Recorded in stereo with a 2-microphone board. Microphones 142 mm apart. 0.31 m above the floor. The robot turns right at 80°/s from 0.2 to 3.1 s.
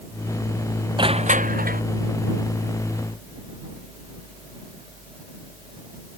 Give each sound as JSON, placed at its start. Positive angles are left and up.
{"t": 1.0, "sound": "crushing", "azimuth_deg": -145}